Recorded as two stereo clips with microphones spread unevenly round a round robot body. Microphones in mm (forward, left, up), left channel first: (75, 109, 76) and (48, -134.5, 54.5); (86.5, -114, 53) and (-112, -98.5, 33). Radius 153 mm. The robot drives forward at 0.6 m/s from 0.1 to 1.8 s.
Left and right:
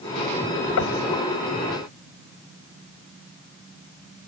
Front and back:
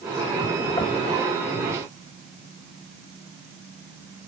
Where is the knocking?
70° left; by 1.0 s 75° left.